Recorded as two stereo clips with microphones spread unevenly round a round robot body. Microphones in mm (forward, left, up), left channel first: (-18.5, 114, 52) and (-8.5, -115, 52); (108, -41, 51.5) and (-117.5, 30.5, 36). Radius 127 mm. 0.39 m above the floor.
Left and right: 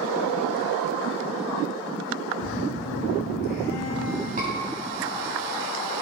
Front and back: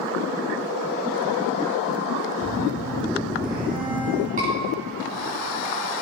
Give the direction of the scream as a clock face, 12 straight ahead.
5 o'clock.